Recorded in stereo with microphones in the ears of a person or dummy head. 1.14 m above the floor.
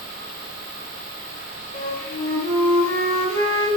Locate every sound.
1.7 s a flute: 30° left (ahead or behind), 0.7 m